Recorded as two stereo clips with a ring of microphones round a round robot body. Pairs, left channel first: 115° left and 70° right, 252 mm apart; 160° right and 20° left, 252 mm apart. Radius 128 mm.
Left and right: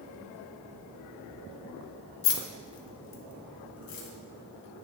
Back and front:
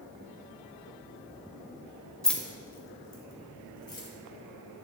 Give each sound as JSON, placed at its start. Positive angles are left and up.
{"t": 2.2, "sound": "keys jangling", "azimuth_deg": 115, "distance_m": 1.1}